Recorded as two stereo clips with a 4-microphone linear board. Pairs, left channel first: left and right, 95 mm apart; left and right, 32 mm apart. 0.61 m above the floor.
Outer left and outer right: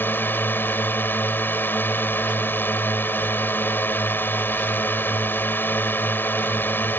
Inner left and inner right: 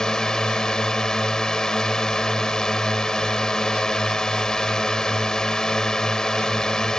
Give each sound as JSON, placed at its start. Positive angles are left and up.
{"t": 0.0, "sound": "a drone", "side_deg": 20}